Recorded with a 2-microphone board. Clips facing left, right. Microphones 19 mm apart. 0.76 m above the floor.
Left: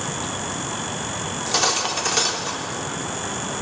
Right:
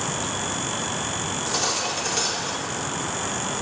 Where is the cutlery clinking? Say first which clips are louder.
Left 5 dB; 30° left (ahead or behind), 0.8 m.